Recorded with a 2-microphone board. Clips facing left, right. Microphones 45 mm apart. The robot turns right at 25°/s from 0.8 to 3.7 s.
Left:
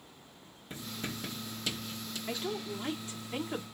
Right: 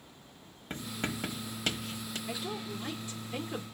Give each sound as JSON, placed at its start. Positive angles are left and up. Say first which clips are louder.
{"t": 0.7, "sound": "writing", "louder": "right 4 dB", "side_deg": -50, "distance_m": 1.1}
{"t": 2.3, "sound": "a woman speaking", "louder": "left 3 dB", "azimuth_deg": 100, "distance_m": 1.7}